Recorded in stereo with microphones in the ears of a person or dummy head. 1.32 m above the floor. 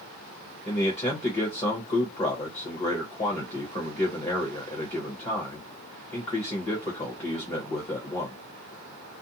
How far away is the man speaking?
About 0.9 m.